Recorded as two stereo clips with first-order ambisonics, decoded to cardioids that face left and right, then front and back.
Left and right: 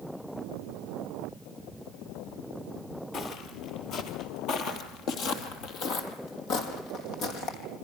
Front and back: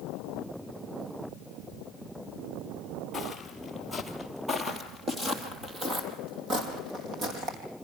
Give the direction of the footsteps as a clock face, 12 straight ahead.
10 o'clock.